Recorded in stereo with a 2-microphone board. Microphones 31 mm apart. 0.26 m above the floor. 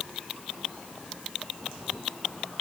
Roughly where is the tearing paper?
No tearing paper in this recording.